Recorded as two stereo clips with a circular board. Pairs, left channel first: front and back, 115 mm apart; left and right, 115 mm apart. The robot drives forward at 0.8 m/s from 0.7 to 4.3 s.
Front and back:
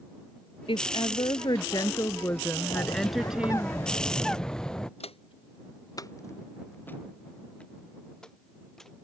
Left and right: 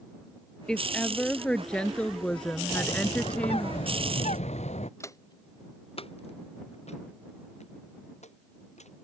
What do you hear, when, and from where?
0.7 s a woman speaking: 10° left; by 3.7 s 150° left
2.7 s a bird: 45° left; by 4.9 s 85° left
5.0 s footsteps: 25° left; by 8.9 s 85° left